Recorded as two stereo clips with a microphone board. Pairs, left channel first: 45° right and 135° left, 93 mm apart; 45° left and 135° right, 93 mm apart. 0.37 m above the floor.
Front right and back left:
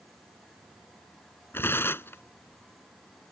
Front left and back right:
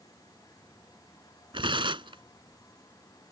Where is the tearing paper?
110° right.